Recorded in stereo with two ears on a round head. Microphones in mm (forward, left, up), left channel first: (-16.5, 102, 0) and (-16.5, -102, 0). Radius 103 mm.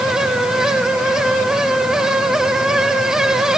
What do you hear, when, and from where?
Only background noise.